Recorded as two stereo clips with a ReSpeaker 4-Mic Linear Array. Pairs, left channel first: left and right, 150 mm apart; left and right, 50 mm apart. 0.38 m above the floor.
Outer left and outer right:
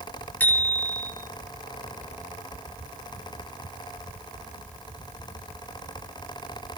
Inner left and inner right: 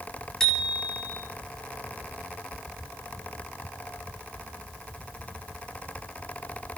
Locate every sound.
0.4 s a bicycle bell: 10° left (ahead or behind), 5.5 m